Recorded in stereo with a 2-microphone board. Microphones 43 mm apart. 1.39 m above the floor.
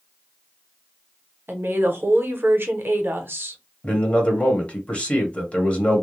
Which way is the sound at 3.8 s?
30° left (ahead or behind).